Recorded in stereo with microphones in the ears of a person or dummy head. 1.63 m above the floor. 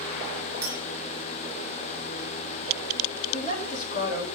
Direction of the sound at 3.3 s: 45° left (ahead or behind).